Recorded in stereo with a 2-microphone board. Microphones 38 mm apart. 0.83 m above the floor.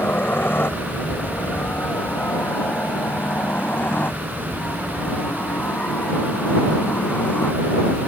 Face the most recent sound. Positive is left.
turn(degrees=50)  # may be behind; listen again after turning